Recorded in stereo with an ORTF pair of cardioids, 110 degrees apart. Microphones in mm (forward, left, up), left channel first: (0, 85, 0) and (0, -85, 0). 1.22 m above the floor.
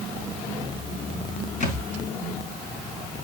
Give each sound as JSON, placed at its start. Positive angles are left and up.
{"t": 1.6, "sound": "a thud", "azimuth_deg": 50, "distance_m": 4.5}